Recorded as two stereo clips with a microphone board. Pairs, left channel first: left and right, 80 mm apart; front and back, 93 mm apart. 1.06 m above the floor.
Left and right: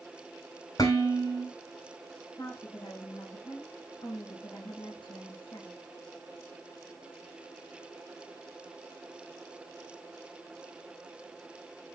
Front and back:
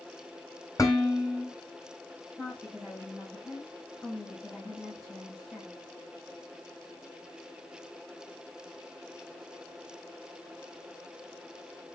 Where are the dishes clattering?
55° left, 4 m.